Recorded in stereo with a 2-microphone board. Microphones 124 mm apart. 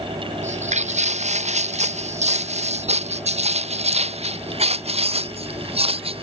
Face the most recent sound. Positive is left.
turn(degrees=-50)  # may be behind; listen again after turning